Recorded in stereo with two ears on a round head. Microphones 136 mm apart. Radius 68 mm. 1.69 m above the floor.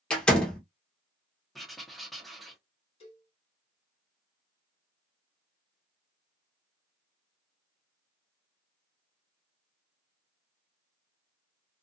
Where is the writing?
Centre (ahead or behind), 0.9 m.